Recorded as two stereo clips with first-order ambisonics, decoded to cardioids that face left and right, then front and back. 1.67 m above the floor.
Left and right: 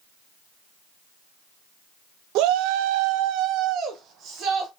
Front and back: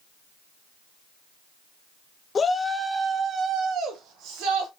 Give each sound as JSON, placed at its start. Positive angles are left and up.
{"t": 2.4, "sound": "a shout", "azimuth_deg": -70, "distance_m": 0.7}